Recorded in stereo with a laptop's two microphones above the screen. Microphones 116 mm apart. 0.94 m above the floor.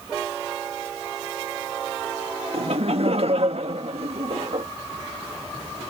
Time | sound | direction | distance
2.5 | laughter | 65° right (ahead or behind) | ?